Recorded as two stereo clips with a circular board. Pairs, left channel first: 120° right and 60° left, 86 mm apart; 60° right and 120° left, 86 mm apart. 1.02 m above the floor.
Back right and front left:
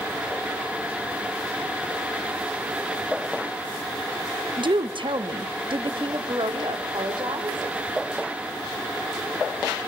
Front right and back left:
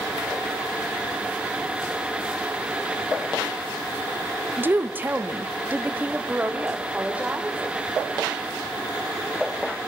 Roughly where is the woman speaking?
Ahead left.